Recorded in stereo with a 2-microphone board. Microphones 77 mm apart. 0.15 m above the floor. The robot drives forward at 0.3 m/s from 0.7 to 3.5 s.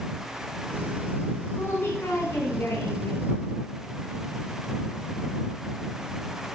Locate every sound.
1.6 s a woman speaking: 35° left (ahead or behind), 1.3 m